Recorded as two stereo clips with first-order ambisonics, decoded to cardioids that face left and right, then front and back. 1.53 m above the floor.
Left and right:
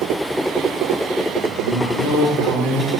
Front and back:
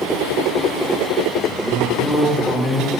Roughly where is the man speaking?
Behind left.